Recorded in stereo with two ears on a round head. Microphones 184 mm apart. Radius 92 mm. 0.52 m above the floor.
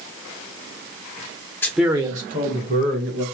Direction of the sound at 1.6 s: 10° left (ahead or behind).